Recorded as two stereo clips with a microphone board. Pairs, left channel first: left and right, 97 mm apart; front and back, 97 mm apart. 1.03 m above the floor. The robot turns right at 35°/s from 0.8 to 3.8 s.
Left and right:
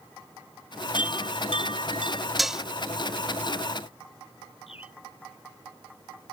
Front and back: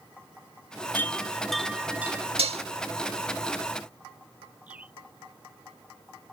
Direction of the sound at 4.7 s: 105° left.